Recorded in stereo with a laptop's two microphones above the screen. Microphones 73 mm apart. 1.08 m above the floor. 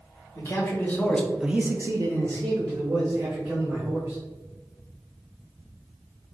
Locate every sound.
0.3 s a man speaking: 30° left (ahead or behind), 1.3 m; by 4.2 s 45° right (ahead or behind), 3 m